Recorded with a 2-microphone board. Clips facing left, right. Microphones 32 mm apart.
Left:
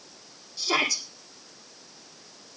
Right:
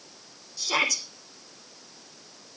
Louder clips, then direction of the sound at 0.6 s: Even; 20° left (ahead or behind).